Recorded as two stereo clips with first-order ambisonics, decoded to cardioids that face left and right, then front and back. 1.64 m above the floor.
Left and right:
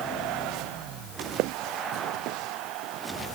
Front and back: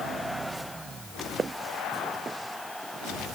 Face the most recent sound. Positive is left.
turn(degrees=-110)